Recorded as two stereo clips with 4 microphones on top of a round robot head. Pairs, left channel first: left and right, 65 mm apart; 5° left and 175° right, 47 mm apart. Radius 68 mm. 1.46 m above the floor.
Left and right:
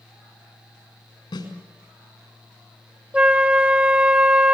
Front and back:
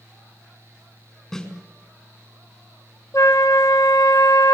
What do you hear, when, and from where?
1.3 s a snare drum: 80° left, 7 m
3.1 s a flute: 20° right, 1.0 m